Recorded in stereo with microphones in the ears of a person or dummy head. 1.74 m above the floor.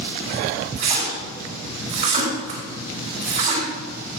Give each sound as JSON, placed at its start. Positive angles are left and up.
{"t": 0.8, "sound": "a splash", "side_deg": -40, "distance_m": 3.0}